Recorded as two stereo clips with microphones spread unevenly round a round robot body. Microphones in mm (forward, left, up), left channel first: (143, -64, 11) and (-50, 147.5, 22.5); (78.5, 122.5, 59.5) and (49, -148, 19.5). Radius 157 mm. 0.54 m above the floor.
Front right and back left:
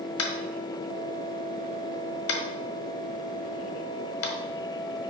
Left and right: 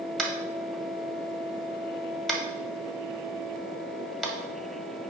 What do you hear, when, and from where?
0.2 s tapping: 5° right, 1.4 m